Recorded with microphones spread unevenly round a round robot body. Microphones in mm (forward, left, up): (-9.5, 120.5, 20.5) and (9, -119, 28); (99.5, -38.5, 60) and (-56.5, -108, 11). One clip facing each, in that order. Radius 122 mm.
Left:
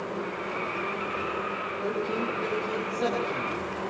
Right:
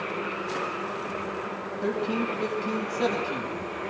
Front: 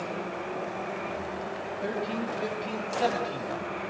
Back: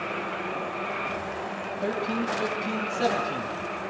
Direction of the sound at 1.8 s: 130° right.